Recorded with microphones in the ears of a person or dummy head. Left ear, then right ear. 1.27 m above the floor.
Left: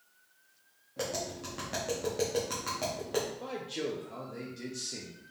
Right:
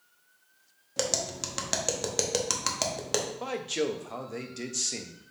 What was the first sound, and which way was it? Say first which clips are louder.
Tapping: right 6 dB; 55° right (ahead or behind).